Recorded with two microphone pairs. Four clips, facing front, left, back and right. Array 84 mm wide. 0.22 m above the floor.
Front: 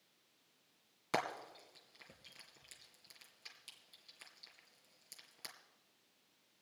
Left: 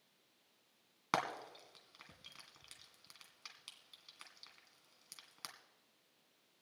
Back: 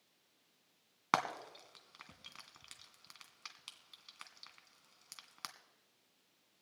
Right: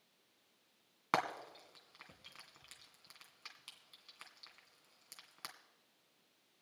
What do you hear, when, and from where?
1.1 s frying: straight behind, 2 m